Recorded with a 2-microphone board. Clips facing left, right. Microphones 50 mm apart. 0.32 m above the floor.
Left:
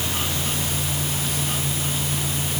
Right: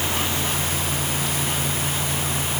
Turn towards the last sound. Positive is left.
No sound to turn to.